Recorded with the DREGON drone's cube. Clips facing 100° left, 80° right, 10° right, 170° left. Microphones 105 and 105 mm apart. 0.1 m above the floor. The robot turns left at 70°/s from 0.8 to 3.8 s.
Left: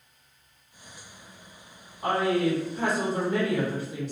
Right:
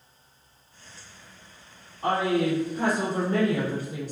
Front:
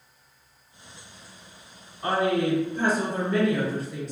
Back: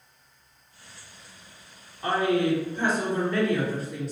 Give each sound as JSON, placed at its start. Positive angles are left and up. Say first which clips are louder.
{"t": 2.0, "sound": "a woman speaking", "louder": "even, even", "azimuth_deg": 20, "distance_m": 2.0}